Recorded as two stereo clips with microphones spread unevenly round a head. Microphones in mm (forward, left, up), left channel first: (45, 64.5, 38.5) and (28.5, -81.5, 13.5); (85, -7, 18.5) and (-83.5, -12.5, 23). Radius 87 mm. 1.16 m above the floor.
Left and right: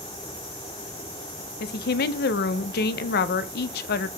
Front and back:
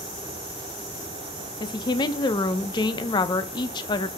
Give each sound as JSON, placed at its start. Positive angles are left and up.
{"t": 1.6, "sound": "a woman speaking", "azimuth_deg": 70, "distance_m": 0.6}